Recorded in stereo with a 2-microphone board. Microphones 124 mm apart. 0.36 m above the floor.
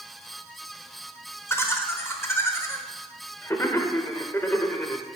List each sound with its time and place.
1.5 s laughter: 20° left (ahead or behind), 1.1 m